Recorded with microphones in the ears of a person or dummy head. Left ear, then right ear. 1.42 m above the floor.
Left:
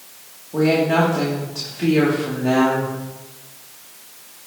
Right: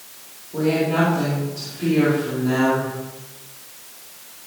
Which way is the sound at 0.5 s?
65° left (ahead or behind).